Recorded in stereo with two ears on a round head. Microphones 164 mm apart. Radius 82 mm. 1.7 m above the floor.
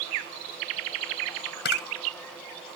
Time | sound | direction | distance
1.6 | a camera shutter | 60° left (ahead or behind) | ?